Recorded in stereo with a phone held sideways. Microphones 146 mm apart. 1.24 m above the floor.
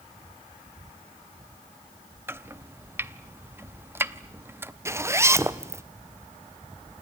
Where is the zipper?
20° right (ahead or behind), 0.7 m.